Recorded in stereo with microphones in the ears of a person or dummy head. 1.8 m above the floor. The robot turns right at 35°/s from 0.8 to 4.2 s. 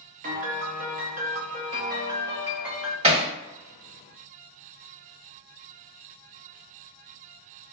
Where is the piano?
75° right, 0.5 m; by 2.9 s straight ahead, 0.5 m.